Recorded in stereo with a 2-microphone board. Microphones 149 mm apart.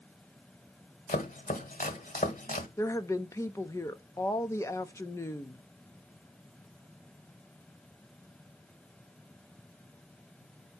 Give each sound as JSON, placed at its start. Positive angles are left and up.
{"t": 1.1, "sound": "chopping", "side_deg": 65, "distance_m": 1.1}
{"t": 2.8, "sound": "a woman speaking", "side_deg": 20, "distance_m": 0.7}